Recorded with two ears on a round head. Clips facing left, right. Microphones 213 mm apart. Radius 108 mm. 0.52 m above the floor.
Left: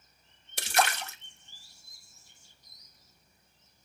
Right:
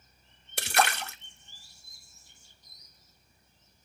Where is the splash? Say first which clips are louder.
Right 1 dB; 50° right (ahead or behind), 0.9 m.